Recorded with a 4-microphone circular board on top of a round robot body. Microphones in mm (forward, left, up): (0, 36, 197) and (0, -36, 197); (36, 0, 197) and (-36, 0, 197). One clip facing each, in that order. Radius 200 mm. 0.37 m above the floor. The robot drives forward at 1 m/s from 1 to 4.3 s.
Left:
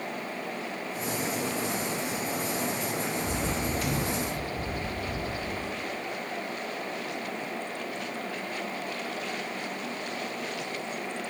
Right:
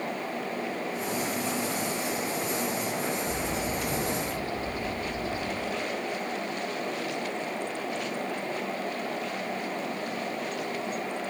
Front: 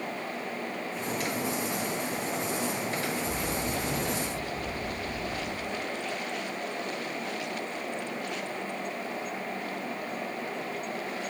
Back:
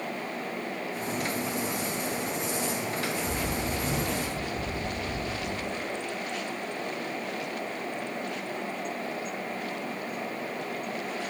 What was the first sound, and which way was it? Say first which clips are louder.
A bird: even, back 1 dB; 115° left.